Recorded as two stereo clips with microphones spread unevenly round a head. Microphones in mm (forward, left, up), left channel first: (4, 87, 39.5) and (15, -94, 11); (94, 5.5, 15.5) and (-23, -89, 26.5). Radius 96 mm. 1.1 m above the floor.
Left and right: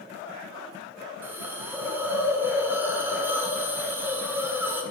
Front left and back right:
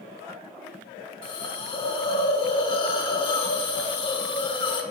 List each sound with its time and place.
1.2 s a hiss: straight ahead, 0.9 m